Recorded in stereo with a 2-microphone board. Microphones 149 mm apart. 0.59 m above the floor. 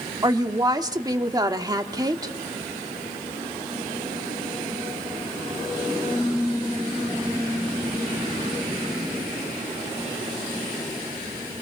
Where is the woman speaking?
25° right (ahead or behind), 1.4 m.